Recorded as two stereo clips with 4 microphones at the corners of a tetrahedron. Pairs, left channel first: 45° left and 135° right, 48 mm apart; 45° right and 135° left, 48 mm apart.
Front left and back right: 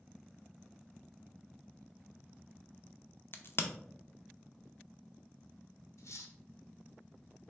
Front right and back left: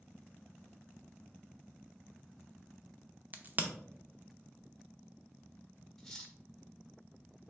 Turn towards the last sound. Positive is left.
turn(degrees=40)